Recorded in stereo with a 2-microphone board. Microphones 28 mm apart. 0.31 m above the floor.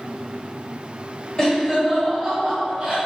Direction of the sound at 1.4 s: 20° left (ahead or behind).